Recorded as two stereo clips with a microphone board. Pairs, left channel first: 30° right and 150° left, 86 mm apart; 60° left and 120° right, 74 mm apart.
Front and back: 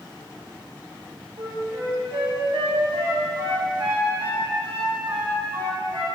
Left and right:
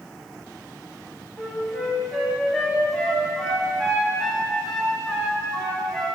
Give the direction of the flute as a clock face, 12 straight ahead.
7 o'clock.